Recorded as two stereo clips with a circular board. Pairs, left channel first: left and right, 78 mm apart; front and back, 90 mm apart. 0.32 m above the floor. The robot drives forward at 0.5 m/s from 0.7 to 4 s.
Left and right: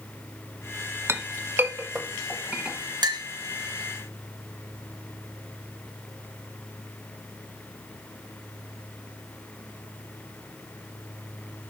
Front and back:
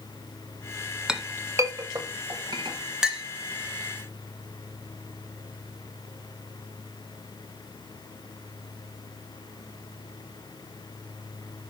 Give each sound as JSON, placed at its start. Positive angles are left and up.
{"t": 1.1, "sound": "a clink", "azimuth_deg": -105, "distance_m": 0.5}
{"t": 3.0, "sound": "a clink", "azimuth_deg": -100, "distance_m": 1.1}